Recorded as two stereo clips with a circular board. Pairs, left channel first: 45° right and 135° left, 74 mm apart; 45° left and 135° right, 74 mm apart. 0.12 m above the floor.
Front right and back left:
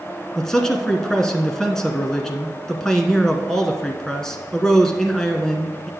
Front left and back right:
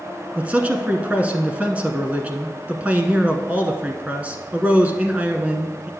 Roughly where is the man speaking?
Behind right.